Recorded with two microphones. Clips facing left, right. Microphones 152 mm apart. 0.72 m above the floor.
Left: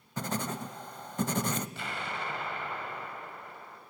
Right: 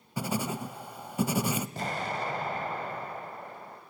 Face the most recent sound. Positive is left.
turn(degrees=-40)  # may be behind; listen again after turning